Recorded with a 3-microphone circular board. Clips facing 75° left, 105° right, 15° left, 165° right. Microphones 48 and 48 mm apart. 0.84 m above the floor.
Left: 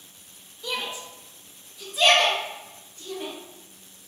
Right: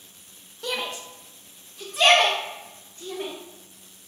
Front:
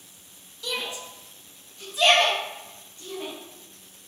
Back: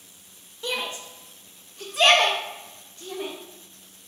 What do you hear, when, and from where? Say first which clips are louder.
0.6 s a shout: right 1 dB, back 2 dB; 110° right, 0.9 m; by 3.3 s 150° right, 3 m